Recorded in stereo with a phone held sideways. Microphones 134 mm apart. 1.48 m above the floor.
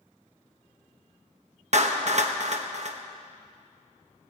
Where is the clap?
55° right (ahead or behind), 1.2 m.